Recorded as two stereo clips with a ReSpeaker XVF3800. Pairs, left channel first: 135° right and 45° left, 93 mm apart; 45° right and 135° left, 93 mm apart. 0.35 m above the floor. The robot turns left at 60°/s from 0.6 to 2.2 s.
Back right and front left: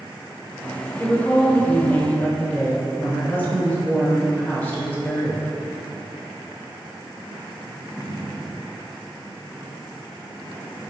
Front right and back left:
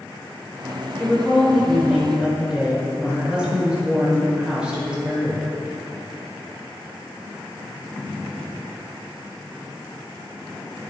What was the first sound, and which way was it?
A woman speaking, 95° right.